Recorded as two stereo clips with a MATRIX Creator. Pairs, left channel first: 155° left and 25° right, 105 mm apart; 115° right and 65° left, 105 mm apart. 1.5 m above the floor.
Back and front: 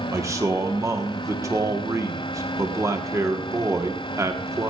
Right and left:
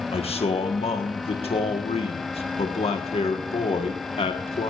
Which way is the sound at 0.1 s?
85° right.